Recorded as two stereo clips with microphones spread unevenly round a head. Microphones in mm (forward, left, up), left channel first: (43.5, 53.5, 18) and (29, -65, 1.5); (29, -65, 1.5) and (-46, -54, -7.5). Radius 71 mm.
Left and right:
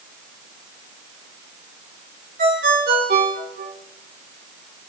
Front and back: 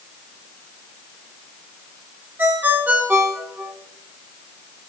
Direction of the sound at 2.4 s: 125° right.